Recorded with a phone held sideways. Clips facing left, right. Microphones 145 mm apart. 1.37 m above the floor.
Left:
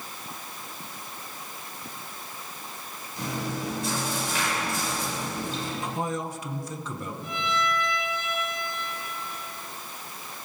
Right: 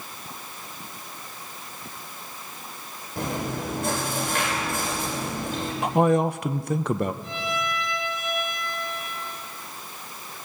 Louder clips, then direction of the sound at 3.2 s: Right 3 dB; 55° right (ahead or behind).